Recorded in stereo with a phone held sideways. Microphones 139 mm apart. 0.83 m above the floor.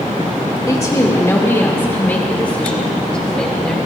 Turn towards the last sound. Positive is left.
turn(degrees=5)  # may be behind; listen again after turning